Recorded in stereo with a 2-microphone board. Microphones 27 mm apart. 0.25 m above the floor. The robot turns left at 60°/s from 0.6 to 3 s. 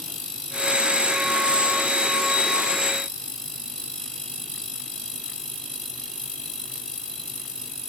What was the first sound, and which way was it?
Only background noise.